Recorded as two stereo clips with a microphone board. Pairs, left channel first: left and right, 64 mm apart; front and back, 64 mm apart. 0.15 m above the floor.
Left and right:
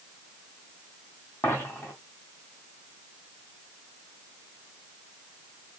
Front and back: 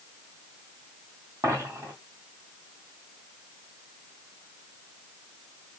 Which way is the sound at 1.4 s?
145° left.